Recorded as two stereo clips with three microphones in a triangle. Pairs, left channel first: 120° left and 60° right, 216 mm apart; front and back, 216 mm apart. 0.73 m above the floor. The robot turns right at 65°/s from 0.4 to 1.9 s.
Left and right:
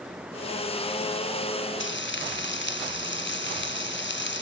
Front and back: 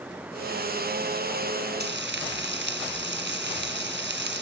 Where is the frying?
140° left, 1.9 m; by 4.4 s 150° left, 1.9 m.